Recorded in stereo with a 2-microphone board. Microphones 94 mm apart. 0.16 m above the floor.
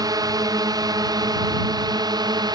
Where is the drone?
45° right (ahead or behind); by 2.5 s 50° right (ahead or behind).